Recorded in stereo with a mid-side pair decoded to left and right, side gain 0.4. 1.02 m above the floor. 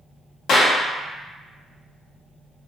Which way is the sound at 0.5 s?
70° left.